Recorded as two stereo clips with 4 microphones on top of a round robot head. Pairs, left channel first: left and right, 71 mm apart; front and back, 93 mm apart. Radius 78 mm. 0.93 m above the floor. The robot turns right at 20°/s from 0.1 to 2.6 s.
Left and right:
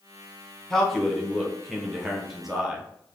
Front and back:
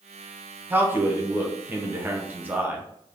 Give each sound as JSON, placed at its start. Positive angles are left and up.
{"t": 0.7, "sound": "a man speaking", "azimuth_deg": 165, "distance_m": 0.9}